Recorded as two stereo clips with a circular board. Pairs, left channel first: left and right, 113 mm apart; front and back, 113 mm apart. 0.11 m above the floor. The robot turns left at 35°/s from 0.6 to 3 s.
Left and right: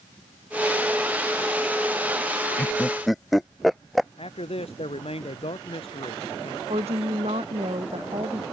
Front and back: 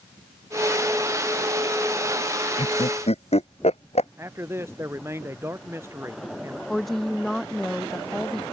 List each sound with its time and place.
2.6 s laughter: 15° left; by 4.1 s straight ahead
4.2 s a man speaking: 115° left
6.7 s a woman speaking: 90° right